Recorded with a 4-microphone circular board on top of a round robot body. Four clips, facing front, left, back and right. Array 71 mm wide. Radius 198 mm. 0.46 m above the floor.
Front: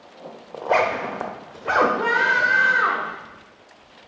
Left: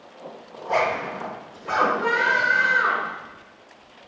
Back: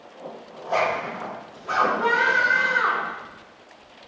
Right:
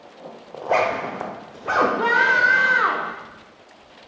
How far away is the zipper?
About 0.7 m.